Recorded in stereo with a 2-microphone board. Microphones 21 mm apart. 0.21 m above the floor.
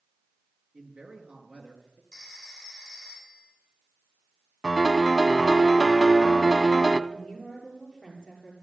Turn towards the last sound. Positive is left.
turn(degrees=10)  # may be behind; listen again after turning